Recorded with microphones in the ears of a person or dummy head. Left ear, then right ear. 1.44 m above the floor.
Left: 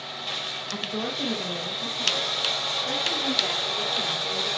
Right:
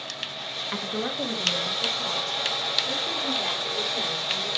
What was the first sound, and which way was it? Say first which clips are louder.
A woman speaking: right 1 dB; 25° right (ahead or behind).